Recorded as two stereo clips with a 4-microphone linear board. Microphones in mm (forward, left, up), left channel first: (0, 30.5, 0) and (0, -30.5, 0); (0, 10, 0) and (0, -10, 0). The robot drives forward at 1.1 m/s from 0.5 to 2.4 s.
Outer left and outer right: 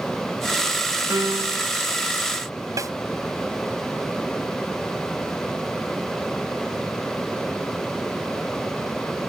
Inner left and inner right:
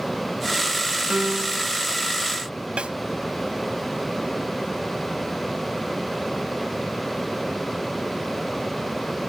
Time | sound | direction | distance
1.1 | a piano | 65° right (ahead or behind) | ?
2.8 | a snare drum | 65° right (ahead or behind) | ?